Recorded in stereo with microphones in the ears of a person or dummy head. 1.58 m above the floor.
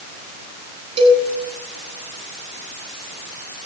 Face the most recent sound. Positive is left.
turn(degrees=-40)  # may be behind; listen again after turning